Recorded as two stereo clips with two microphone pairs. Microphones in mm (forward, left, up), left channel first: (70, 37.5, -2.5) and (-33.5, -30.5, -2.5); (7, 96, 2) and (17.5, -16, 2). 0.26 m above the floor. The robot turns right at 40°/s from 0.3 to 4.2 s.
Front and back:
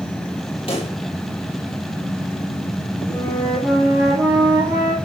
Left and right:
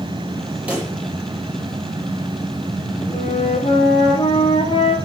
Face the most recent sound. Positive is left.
turn(degrees=145)